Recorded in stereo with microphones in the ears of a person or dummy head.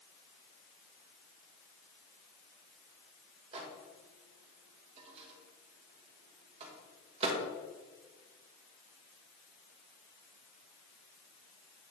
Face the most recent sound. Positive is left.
turn(degrees=-35)  # may be behind; listen again after turning